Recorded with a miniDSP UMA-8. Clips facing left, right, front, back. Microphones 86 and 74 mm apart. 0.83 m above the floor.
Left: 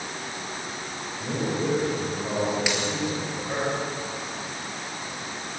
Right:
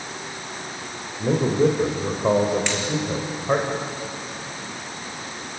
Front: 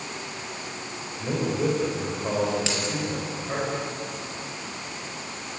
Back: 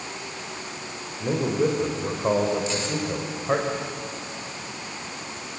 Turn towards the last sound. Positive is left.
turn(degrees=5)